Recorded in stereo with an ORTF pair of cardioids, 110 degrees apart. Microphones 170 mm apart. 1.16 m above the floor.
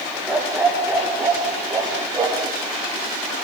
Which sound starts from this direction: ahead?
A dog barking, at 0.3 s.